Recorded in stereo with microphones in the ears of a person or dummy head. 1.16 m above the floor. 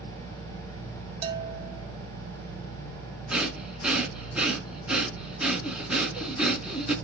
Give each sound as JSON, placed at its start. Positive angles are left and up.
{"t": 1.2, "sound": "a bell", "side_deg": -35, "distance_m": 1.8}
{"t": 3.3, "sound": "breathing", "side_deg": 0, "distance_m": 2.5}